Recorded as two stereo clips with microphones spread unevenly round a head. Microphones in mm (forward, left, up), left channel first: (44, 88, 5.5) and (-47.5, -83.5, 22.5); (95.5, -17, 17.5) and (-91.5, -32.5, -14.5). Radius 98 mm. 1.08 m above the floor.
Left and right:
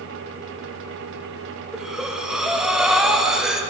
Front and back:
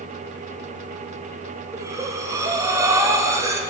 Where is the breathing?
145° left, 0.6 m.